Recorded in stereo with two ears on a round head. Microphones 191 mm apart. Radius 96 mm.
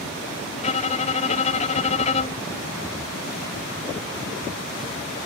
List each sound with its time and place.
0.6 s a violin: 35° left (ahead or behind)